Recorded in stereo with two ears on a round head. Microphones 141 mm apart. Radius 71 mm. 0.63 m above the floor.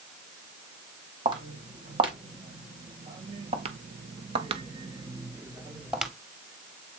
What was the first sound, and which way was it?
Footsteps, 30° right (ahead or behind).